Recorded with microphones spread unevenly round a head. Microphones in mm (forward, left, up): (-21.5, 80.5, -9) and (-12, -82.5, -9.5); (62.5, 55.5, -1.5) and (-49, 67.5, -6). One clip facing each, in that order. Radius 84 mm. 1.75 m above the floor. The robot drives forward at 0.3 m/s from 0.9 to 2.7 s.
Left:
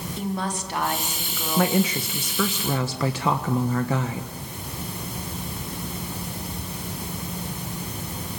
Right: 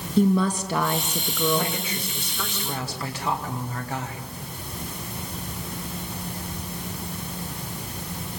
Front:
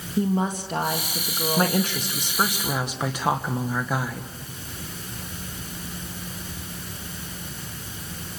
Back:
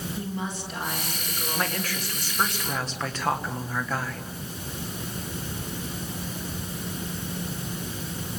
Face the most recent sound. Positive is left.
turn(degrees=70)